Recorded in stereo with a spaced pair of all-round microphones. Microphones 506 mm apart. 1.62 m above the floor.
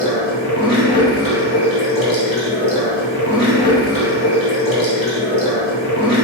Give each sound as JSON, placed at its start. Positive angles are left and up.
{"t": 0.0, "sound": "running water", "side_deg": 10, "distance_m": 1.6}